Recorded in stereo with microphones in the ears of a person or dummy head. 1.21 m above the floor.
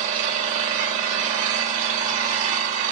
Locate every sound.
0.0 s an engine running: 40° right (ahead or behind), 1.8 m